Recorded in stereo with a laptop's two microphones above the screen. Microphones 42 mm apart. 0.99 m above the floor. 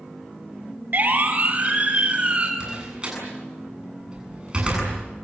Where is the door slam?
25° right (ahead or behind), 7.5 m.